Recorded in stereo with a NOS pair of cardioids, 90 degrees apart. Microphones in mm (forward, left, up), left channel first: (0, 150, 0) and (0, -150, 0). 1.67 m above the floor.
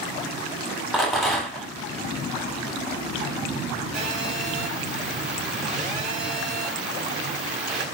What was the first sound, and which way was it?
A rattle, straight ahead.